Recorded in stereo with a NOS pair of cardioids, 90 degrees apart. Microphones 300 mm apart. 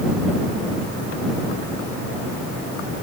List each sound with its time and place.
Only background noise.